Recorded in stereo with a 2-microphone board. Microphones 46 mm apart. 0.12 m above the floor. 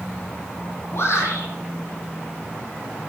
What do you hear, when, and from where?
0.9 s a shout: 65° left (ahead or behind), 6.5 m